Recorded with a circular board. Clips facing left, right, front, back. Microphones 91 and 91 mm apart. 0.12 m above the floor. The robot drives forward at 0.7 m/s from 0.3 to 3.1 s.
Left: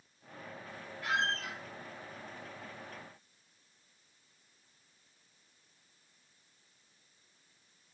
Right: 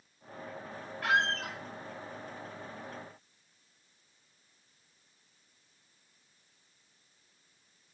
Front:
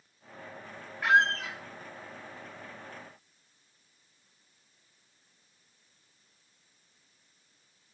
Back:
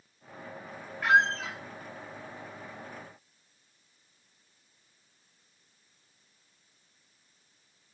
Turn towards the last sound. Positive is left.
turn(degrees=-160)